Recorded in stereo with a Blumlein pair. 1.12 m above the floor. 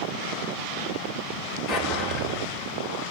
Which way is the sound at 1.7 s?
35° left.